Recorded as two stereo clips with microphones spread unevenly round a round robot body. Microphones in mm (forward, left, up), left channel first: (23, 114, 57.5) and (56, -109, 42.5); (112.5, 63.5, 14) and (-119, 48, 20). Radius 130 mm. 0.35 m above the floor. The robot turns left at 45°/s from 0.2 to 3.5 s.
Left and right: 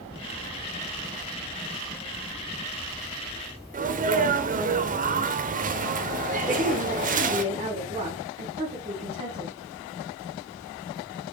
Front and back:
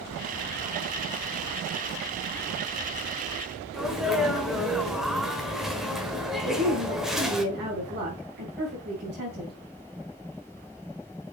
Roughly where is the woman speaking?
Behind right.